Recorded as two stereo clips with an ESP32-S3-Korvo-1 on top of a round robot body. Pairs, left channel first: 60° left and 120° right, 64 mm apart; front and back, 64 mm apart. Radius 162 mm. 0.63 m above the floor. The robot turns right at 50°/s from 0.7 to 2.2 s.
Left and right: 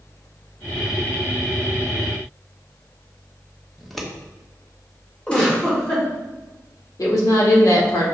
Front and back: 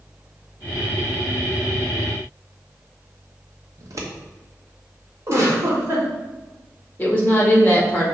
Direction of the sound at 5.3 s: 130° left.